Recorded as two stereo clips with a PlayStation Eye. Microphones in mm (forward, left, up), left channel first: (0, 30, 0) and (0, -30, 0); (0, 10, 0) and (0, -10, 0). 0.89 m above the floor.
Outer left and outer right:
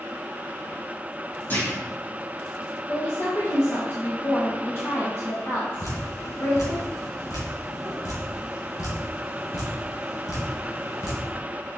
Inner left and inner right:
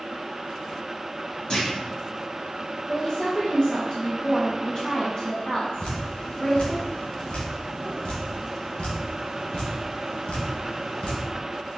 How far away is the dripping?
About 2.5 m.